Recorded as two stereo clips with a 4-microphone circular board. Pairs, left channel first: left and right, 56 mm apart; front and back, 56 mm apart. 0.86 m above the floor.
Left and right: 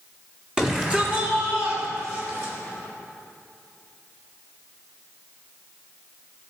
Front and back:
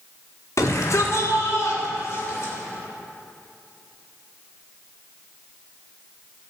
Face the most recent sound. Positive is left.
turn(degrees=-45)